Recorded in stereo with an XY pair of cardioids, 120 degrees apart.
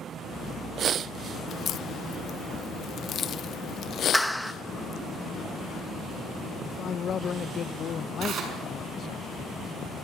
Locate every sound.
1.5 s a crack: 50° left, 0.7 m
4.1 s a clap: straight ahead, 1.3 m
6.6 s a man speaking: 45° left, 0.9 m
8.2 s tearing paper: 60° right, 6 m